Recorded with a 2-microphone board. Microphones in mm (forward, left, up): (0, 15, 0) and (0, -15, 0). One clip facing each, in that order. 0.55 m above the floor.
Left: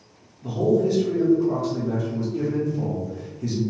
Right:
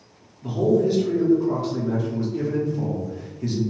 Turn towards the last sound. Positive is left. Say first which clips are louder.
# right 1 dB
turn(degrees=-20)  # may be behind; listen again after turning